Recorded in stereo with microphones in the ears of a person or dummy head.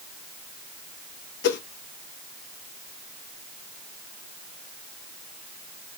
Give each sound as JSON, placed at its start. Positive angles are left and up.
{"t": 1.4, "sound": "a whoosh", "side_deg": 55, "distance_m": 0.6}